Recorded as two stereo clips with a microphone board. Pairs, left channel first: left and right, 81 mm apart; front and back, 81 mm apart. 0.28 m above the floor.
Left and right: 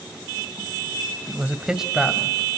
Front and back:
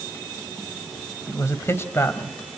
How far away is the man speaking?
About 1.9 m.